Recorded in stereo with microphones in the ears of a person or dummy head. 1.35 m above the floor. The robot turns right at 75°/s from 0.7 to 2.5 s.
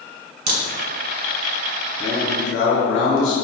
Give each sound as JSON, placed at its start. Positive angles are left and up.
{"t": 0.5, "sound": "a crack", "side_deg": -40, "distance_m": 1.4}
{"t": 2.0, "sound": "a man speaking", "azimuth_deg": 30, "distance_m": 1.6}